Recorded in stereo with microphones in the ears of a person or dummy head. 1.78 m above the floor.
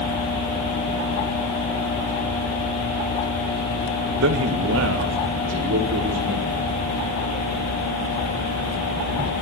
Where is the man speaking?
75° right (ahead or behind), 1.8 m; by 6.7 s 80° right, 5.5 m.